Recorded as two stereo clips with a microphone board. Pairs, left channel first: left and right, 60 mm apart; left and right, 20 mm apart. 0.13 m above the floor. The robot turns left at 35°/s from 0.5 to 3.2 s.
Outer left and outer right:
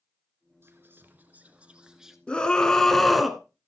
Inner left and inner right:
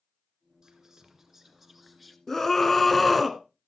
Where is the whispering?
120° right, 1.4 m; by 2.2 s 175° right, 1.4 m.